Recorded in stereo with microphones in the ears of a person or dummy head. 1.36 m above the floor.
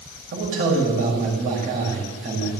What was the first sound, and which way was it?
A man speaking, 45° right (ahead or behind).